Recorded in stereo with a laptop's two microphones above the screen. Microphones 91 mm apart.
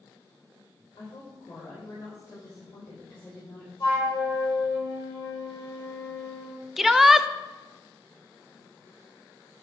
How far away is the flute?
About 4 m.